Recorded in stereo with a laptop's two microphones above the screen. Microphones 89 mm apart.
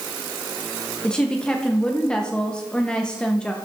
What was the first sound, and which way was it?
A woman speaking, 10° left (ahead or behind).